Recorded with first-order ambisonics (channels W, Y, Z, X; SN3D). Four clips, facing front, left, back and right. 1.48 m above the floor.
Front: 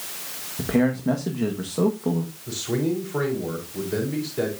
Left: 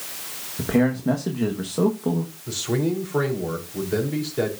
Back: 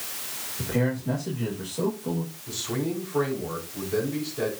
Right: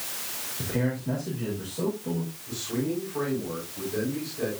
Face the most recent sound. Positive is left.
turn(degrees=65)